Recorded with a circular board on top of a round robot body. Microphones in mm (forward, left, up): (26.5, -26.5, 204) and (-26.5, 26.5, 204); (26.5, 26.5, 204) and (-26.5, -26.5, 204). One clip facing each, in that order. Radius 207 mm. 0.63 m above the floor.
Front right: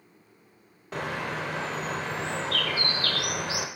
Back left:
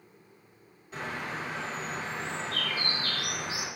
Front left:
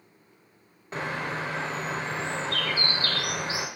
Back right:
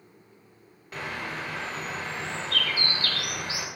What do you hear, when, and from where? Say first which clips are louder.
0.9 s a bird: front right 4 dB, front left 3 dB; 15° right, 0.7 m